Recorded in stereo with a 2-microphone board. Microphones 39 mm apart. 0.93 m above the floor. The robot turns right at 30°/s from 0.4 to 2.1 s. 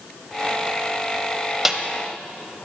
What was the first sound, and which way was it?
A snare drum, 10° right (ahead or behind).